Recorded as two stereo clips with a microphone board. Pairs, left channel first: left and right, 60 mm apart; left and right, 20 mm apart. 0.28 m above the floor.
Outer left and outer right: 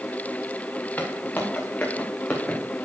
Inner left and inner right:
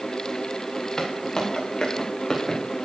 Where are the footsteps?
30° left (ahead or behind), 4.5 m; by 2.6 s 20° left (ahead or behind), 4.5 m.